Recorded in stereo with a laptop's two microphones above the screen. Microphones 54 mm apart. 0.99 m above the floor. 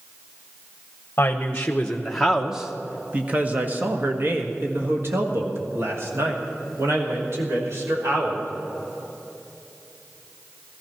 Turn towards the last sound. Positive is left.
turn(degrees=-60)  # may be behind; listen again after turning